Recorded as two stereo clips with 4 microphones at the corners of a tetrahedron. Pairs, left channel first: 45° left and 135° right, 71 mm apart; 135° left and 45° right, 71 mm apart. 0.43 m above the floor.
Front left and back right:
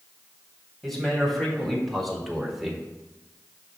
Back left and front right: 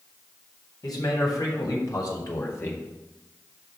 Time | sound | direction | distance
0.8 | a man speaking | 135° left | 3.5 m